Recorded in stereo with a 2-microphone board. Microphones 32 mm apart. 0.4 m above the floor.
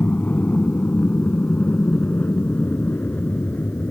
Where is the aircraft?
55° left (ahead or behind); by 3.9 s 60° left (ahead or behind).